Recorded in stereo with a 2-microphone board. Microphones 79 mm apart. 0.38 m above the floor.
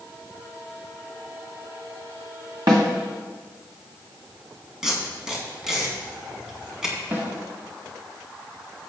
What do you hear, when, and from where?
2.7 s a snare drum: 65° right (ahead or behind), 2.5 m
4.8 s tape being pulled: 10° right (ahead or behind), 2.5 m
7.1 s a snare drum: 35° right (ahead or behind), 3.5 m